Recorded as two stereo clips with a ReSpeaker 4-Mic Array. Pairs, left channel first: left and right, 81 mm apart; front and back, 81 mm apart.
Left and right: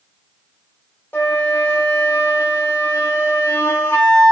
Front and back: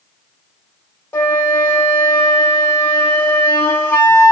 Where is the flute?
40° left, 1.2 m.